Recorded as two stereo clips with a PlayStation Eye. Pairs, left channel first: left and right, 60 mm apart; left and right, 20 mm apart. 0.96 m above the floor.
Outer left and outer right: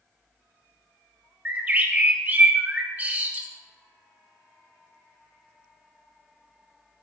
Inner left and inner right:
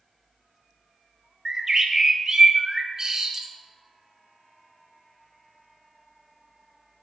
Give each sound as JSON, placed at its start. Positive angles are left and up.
{"t": 1.4, "sound": "a bird", "side_deg": -30, "distance_m": 0.9}